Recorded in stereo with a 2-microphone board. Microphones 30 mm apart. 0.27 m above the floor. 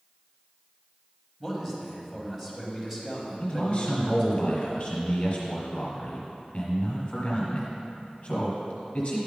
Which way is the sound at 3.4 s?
30° left (ahead or behind).